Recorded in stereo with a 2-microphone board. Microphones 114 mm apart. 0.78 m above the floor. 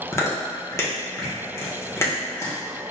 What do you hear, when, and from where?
0.1 s chewing: 25° left (ahead or behind), 1.1 m